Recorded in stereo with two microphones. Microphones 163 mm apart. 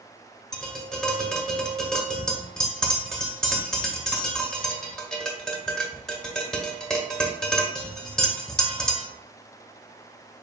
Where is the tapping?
5° left (ahead or behind), 1.1 m.